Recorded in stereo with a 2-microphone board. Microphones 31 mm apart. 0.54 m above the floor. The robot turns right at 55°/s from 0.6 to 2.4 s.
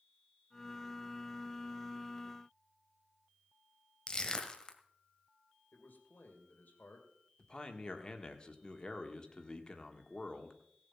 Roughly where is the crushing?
Left.